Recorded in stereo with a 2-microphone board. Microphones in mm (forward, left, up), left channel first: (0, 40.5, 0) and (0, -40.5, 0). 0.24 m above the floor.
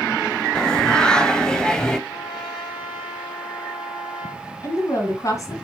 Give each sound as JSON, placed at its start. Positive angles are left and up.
{"t": 0.6, "sound": "singing", "side_deg": 10, "distance_m": 0.9}
{"t": 2.1, "sound": "a trumpet", "side_deg": 80, "distance_m": 5.5}
{"t": 4.6, "sound": "a woman speaking", "side_deg": 40, "distance_m": 2.0}